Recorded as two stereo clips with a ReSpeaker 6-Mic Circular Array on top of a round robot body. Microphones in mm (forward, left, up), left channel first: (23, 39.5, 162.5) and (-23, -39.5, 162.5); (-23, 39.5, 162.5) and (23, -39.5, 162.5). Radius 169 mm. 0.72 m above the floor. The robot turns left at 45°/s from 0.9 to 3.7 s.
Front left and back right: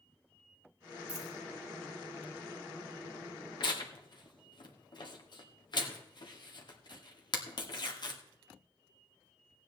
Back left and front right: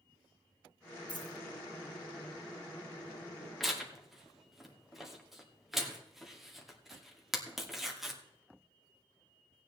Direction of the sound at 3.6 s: 30° left.